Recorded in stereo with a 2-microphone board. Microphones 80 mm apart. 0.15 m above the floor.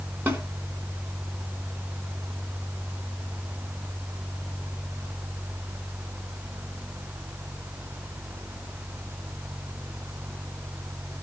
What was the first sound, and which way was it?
A snare drum, 20° right (ahead or behind).